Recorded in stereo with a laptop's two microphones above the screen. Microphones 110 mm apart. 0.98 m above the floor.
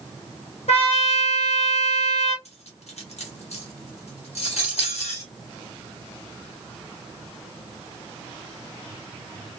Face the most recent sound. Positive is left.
turn(degrees=75)  # may be behind; listen again after turning